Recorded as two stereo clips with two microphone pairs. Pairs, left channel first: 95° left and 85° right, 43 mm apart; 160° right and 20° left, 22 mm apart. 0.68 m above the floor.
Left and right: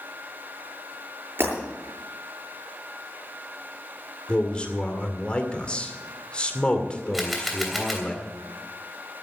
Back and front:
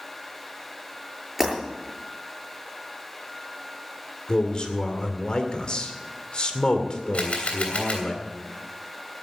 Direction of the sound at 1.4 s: 60° right.